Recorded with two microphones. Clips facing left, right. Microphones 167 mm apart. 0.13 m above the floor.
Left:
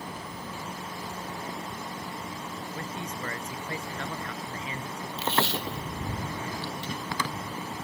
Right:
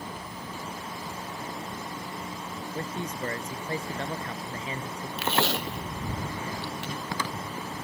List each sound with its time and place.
2.8 s a man speaking: 35° right (ahead or behind)
5.2 s tape being pulled: 75° right (ahead or behind)